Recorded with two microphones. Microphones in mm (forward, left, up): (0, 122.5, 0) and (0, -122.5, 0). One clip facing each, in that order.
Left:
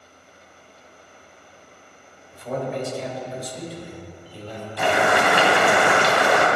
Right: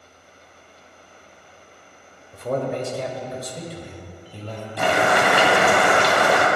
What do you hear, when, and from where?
2.3 s a man speaking: 55° right (ahead or behind), 1.9 m; by 4.7 s 65° right (ahead or behind), 2.5 m
4.8 s boiling: 55° right (ahead or behind), 2.5 m